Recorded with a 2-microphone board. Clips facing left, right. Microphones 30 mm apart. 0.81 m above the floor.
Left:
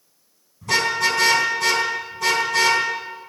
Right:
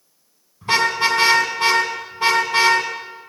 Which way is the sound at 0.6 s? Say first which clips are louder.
Right 2 dB; 35° right (ahead or behind).